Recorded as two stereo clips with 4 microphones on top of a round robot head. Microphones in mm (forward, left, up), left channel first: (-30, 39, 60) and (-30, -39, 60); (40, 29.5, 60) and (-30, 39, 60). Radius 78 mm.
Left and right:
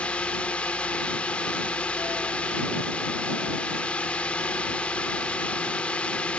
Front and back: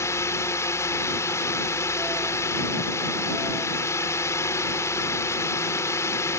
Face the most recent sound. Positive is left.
turn(degrees=20)